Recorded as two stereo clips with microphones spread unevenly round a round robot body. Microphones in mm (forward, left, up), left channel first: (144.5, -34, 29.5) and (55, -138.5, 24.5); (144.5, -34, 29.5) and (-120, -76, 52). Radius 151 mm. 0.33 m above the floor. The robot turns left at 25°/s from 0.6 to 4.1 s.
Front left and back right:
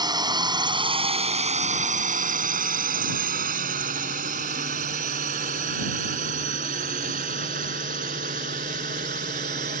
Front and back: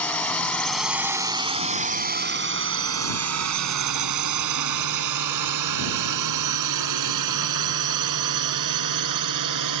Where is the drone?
75° right; by 9.8 s straight behind.